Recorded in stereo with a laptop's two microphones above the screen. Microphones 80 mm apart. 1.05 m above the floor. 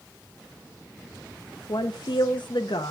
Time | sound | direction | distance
1.7 | a woman speaking | 70° left (ahead or behind) | 0.9 m